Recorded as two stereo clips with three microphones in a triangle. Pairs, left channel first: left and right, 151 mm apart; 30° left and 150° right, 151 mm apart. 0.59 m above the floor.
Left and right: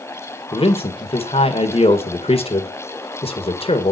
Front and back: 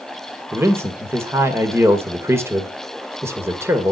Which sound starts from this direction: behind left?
A man speaking, at 0.5 s.